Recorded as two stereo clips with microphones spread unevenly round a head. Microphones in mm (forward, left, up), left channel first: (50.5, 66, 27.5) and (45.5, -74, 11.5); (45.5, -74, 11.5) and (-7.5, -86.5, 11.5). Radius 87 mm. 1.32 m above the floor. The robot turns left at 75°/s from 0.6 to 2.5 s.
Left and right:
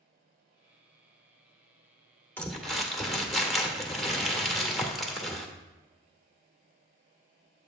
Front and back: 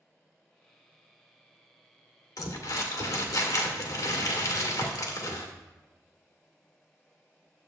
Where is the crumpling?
10° left, 1.8 m; by 5.5 s straight ahead, 1.8 m.